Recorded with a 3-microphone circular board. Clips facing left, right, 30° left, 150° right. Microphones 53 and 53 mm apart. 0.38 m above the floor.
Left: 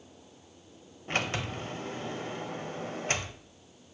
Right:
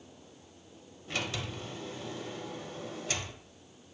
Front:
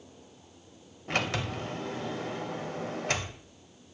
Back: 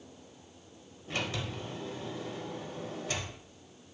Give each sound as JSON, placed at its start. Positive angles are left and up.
{"t": 1.1, "sound": "a sliding door", "azimuth_deg": 50, "distance_m": 0.5}